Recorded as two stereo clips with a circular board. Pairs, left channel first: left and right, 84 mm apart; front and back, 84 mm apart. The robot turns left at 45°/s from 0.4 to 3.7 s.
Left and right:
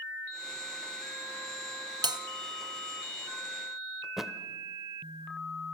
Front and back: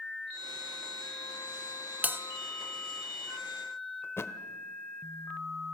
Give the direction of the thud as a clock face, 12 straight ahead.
12 o'clock.